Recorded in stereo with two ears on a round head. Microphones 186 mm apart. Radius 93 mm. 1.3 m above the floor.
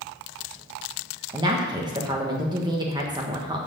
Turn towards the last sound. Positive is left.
turn(degrees=-20)  # may be behind; listen again after turning